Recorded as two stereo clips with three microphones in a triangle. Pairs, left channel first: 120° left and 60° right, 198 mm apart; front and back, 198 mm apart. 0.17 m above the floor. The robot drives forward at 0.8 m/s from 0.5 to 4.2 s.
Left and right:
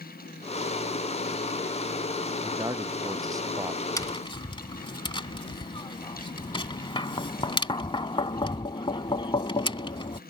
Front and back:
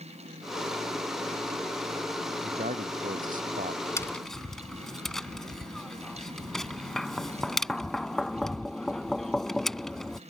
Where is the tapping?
60° left; by 10.2 s 85° left.